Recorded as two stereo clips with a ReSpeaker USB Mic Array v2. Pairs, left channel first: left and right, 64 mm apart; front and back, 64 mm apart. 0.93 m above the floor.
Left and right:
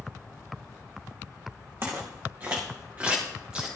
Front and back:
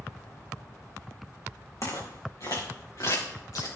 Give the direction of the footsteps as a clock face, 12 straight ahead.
1 o'clock.